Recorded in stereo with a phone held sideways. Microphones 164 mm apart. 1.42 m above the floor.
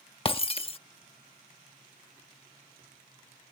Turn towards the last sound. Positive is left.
turn(degrees=35)  # may be behind; listen again after turning